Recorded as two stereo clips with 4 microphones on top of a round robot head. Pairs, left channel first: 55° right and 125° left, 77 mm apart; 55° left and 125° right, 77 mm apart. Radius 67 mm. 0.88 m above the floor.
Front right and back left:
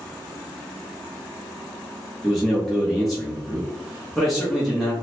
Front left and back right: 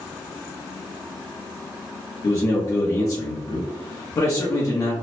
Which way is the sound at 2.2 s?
35° left.